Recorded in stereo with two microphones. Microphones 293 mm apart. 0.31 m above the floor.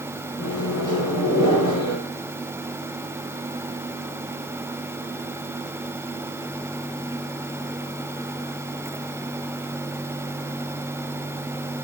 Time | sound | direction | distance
0.4 | a microwave | 60° left (ahead or behind) | 3.5 m